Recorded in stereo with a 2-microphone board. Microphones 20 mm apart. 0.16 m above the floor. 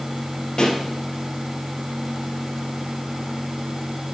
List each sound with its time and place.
0.6 s a pop: 45° left (ahead or behind), 2 m